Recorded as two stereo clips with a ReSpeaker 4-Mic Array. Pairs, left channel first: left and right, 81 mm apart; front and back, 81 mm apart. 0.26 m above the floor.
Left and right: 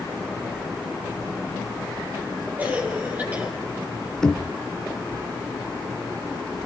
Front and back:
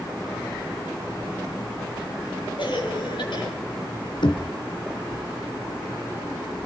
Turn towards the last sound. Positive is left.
turn(degrees=10)